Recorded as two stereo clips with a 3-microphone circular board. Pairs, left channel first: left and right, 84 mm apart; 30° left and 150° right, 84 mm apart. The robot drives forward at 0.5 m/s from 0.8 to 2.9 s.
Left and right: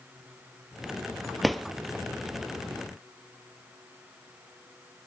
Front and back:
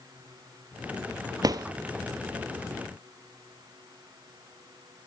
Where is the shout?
I don't hear a shout.